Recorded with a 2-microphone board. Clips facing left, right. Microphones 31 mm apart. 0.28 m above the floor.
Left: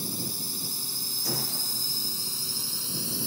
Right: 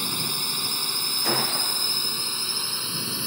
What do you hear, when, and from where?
0.0 s a drone: 60° right (ahead or behind); by 3.3 s 40° right (ahead or behind)
1.2 s a gunshot: 55° right (ahead or behind)